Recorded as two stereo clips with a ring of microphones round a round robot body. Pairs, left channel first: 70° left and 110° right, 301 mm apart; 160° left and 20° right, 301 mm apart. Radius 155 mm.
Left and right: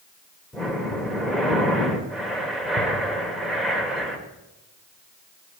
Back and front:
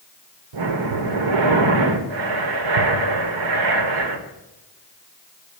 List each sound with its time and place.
0.5 s breathing: 25° right, 1.5 m